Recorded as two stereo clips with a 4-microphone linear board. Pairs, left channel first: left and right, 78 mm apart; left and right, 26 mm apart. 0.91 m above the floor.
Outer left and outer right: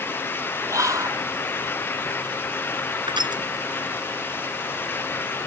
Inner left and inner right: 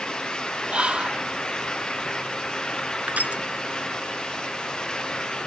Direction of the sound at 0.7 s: 45° right (ahead or behind).